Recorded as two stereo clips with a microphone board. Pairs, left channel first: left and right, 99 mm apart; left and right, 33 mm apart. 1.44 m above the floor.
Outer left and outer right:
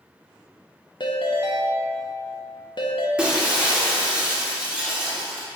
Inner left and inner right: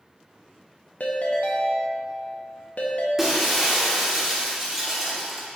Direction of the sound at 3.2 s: 10° right (ahead or behind).